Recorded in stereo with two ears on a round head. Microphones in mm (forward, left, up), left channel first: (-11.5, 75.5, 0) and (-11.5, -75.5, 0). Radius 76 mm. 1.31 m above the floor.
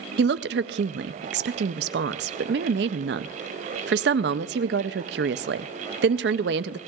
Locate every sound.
0.2 s a woman speaking: 65° right (ahead or behind), 0.5 m